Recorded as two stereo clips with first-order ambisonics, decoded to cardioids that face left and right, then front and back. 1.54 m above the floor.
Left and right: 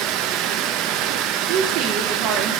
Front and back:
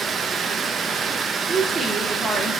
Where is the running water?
115° right, 1.1 m.